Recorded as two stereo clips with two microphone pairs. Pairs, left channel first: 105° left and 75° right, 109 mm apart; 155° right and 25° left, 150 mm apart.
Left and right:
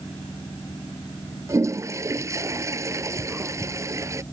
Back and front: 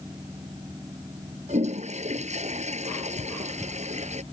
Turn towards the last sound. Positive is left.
turn(degrees=-15)